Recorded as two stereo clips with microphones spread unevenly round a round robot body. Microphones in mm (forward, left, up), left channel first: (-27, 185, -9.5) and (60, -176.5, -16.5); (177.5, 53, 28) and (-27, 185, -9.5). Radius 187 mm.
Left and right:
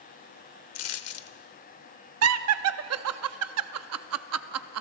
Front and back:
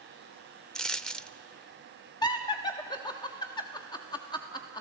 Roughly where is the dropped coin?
Ahead left.